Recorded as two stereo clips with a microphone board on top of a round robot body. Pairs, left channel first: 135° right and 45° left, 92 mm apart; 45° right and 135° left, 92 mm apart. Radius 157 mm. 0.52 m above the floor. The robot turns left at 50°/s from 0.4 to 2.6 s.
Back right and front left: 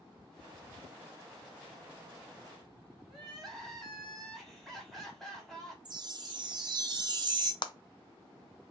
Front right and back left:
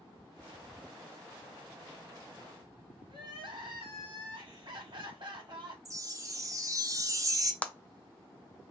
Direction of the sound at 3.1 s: 140° left.